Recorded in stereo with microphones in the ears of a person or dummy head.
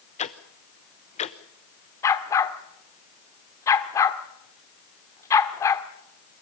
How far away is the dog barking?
About 1.4 m.